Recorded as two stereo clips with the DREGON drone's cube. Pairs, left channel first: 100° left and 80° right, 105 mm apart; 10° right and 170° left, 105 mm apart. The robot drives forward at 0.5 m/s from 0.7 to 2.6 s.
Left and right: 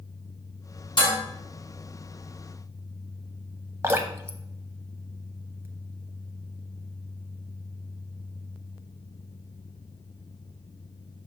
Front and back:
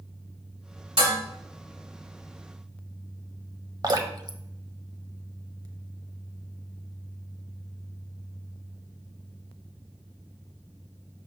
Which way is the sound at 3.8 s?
140° right.